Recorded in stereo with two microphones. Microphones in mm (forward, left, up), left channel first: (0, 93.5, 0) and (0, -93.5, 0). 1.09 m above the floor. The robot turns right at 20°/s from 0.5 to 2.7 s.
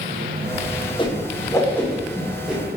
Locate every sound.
1.0 s a whoosh: 25° left (ahead or behind), 0.5 m; by 2.6 s 5° right (ahead or behind), 0.5 m